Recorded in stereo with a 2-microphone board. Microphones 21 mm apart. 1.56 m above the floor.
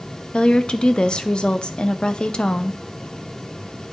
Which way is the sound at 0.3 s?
55° left (ahead or behind).